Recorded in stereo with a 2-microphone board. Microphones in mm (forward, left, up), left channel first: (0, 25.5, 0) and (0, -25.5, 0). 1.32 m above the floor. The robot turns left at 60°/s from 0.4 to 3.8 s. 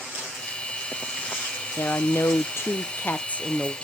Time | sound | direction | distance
1.8 | a woman speaking | 125° left | 0.5 m